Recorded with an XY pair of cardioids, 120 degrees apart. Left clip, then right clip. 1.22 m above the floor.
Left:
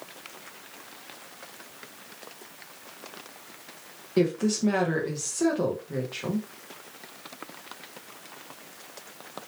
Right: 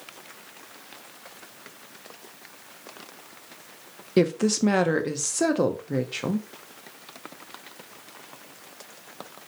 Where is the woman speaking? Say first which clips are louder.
Right 3 dB; 40° right, 0.6 m.